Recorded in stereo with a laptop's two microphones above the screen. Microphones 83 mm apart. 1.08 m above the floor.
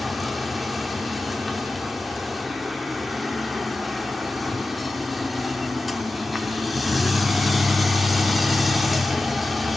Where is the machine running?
Centre (ahead or behind), 0.8 m.